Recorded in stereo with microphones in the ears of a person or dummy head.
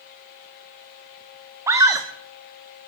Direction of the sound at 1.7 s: 15° right (ahead or behind).